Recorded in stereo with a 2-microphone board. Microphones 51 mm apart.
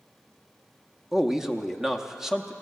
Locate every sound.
1.1 s a man speaking: 10° right (ahead or behind), 0.7 m